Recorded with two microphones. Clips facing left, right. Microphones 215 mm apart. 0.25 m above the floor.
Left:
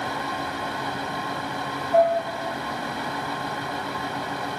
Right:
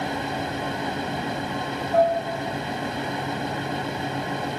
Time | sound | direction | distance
1.9 | dishes clattering | 10° left (ahead or behind) | 2.5 m